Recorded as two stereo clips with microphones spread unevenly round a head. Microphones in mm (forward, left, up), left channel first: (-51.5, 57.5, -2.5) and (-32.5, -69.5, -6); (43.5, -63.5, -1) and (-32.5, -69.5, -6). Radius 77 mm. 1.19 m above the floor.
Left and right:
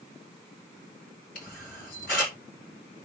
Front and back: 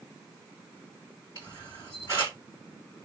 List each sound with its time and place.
1.4 s a camera shutter: 70° left, 3 m